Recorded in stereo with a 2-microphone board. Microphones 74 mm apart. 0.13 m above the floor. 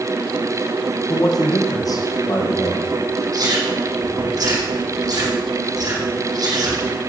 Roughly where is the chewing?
Right.